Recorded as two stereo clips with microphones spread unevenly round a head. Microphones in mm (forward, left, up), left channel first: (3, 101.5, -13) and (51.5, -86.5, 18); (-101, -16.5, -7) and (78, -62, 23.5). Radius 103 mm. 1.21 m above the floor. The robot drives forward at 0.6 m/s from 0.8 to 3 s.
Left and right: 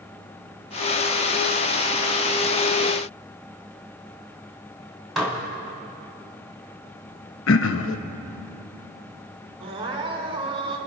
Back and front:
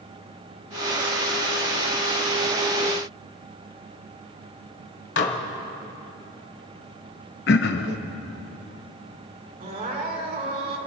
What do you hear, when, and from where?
5.2 s dishes clattering: 165° right, 1.4 m
7.5 s throat clearing: 125° left, 0.6 m
9.6 s crying: 25° right, 1.8 m